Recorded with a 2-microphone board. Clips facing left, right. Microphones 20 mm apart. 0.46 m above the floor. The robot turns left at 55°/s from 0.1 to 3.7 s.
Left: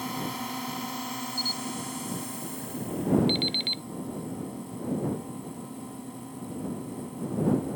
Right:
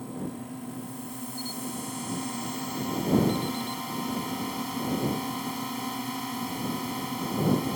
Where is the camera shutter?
40° left (ahead or behind).